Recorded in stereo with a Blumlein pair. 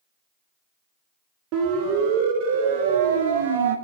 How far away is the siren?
About 3.5 m.